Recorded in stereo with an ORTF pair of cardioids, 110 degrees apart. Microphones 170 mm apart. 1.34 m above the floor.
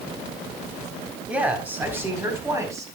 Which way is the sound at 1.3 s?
5° right.